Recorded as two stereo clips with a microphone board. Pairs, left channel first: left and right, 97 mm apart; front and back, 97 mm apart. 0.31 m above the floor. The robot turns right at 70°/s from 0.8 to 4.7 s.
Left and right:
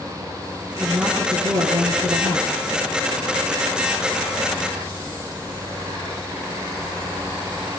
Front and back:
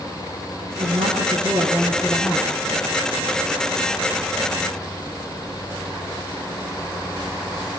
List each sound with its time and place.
0.8 s a woman speaking: straight behind, 7.5 m; by 2.6 s 55° right, 7.5 m